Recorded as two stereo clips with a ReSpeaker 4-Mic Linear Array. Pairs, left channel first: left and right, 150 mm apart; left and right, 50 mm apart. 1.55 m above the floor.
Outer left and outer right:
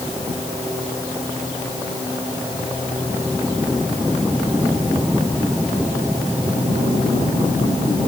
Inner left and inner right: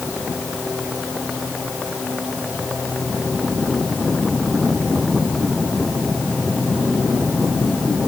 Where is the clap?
I don't hear a clap.